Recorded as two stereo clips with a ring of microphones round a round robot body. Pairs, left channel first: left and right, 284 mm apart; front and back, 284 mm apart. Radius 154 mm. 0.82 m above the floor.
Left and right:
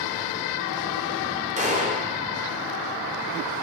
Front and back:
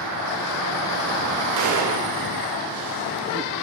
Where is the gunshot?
155° right, 2.5 m.